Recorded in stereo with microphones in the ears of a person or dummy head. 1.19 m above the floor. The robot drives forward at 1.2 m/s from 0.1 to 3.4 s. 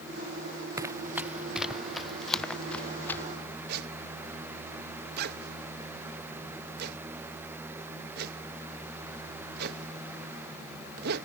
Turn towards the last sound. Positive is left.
turn(degrees=-55)  # may be behind; listen again after turning